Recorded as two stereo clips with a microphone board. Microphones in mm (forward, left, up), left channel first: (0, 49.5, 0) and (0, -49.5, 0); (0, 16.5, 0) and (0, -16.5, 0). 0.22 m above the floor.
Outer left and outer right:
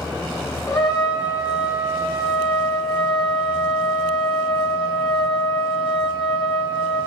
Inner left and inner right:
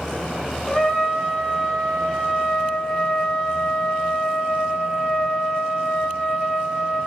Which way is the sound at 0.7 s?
30° left (ahead or behind).